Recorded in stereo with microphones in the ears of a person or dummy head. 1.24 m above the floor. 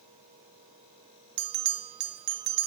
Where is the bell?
50° right (ahead or behind), 0.8 m.